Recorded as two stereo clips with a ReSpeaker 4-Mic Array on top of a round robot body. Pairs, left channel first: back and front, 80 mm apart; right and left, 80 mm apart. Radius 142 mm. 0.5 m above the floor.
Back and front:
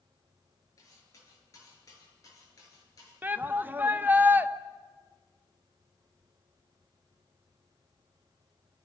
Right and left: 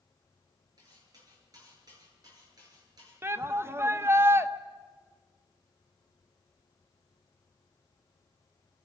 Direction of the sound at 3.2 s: 55° left.